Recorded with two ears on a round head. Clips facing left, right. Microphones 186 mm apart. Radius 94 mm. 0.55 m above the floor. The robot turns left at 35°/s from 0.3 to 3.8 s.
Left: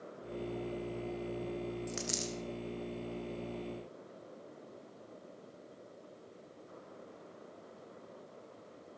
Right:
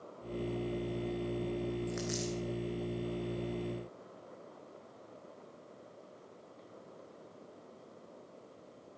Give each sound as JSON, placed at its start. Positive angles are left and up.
{"t": 1.9, "sound": "a dropped coin", "side_deg": 35, "distance_m": 2.5}